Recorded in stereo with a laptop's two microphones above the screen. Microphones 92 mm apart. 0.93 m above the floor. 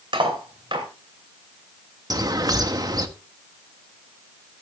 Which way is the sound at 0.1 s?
65° right (ahead or behind).